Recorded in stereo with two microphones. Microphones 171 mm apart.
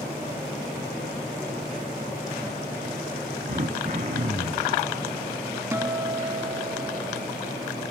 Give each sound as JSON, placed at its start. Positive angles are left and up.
{"t": 3.5, "sound": "throat clearing", "side_deg": -50, "distance_m": 2.0}
{"t": 5.7, "sound": "a guitar", "side_deg": -15, "distance_m": 0.8}